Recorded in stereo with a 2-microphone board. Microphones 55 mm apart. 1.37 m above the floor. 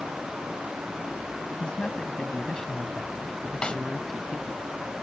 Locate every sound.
1.6 s a man speaking: 15° left (ahead or behind); by 4.6 s centre (ahead or behind)
3.6 s a snare drum: 15° left (ahead or behind)